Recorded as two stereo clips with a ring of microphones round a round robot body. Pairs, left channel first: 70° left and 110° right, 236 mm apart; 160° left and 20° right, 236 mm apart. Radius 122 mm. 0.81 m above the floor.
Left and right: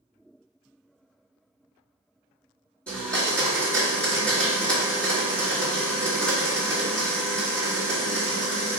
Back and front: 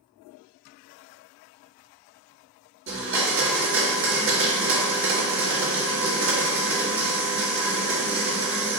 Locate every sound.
2.9 s a blender: 15° right, 1.4 m